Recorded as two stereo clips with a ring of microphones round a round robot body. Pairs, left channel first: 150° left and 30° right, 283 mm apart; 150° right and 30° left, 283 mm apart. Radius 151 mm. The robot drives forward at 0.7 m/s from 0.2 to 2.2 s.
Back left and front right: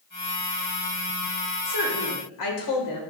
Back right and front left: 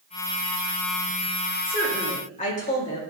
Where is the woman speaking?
140° left, 2.5 m; by 3.0 s 145° left, 3 m.